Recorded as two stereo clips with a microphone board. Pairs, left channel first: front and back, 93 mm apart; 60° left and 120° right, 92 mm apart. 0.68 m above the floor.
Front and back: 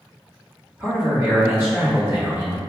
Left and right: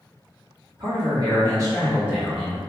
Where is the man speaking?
115° right, 1.7 m; by 2.6 s 140° left, 1.1 m.